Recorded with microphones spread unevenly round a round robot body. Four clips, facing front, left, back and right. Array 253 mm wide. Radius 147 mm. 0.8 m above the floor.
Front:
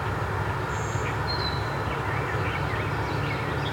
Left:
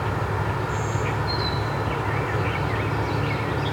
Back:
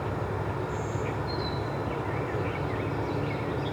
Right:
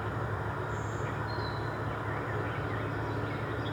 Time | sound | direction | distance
0.0 | an insect | 60° left | 0.7 m